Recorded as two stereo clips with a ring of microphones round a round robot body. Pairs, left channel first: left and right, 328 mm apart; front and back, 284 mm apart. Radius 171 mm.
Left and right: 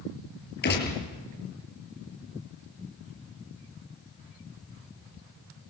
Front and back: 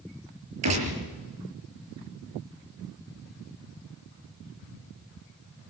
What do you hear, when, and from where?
0.6 s a gunshot: 150° left, 6 m